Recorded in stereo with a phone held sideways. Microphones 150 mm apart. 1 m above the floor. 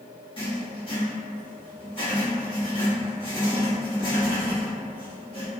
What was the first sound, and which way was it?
Writing, 35° left (ahead or behind).